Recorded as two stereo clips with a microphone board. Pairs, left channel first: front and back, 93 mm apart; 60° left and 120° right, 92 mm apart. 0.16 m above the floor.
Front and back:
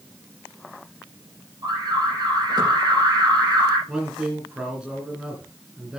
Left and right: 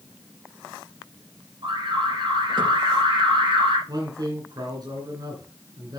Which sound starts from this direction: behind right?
An alarm, at 1.6 s.